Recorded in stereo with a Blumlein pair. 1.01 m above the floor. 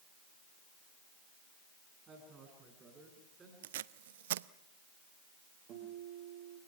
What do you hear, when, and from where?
2.1 s a woman speaking: 25° right, 8.5 m; by 3.5 s 20° right, 9.5 m
3.6 s tape being pulled: 55° right, 0.5 m
5.7 s a guitar: 40° right, 9 m